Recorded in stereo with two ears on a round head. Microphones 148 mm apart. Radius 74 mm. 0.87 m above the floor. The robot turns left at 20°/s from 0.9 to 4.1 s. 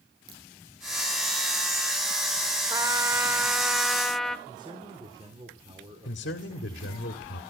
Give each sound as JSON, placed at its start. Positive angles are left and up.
{"t": 0.3, "sound": "a crack", "side_deg": -60, "distance_m": 6.5}
{"t": 2.7, "sound": "a trumpet", "side_deg": -25, "distance_m": 0.8}
{"t": 4.5, "sound": "a man speaking", "side_deg": -30, "distance_m": 3.0}
{"t": 6.0, "sound": "a man speaking", "side_deg": 80, "distance_m": 1.8}